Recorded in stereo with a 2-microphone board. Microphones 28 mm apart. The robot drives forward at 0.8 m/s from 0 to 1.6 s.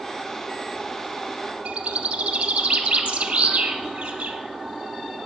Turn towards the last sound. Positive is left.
turn(degrees=-60)  # may be behind; listen again after turning